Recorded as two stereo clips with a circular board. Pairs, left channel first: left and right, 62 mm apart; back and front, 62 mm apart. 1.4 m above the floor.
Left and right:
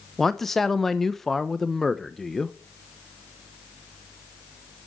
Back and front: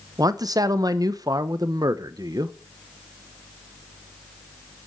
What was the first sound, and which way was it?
A man speaking, 5° left.